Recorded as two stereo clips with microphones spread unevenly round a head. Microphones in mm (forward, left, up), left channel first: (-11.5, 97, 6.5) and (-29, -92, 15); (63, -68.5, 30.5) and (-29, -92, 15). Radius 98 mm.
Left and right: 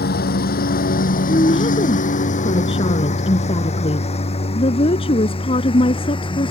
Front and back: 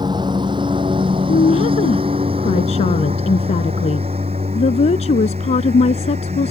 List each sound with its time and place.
0.0 s a lawn mower: 125° left; by 6.5 s 150° left
1.3 s a woman speaking: 20° left